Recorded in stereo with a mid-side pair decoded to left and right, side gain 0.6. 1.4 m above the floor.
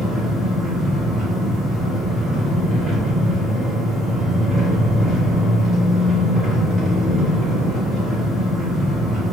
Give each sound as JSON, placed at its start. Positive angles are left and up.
{"t": 0.0, "sound": "an engine running", "azimuth_deg": -35, "distance_m": 1.3}